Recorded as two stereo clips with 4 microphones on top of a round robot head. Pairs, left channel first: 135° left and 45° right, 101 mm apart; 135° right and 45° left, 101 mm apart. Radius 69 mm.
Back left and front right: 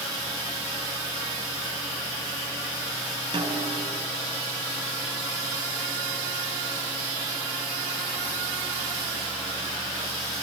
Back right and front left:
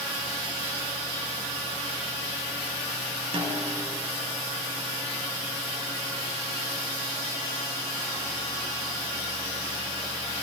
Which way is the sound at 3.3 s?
5° left.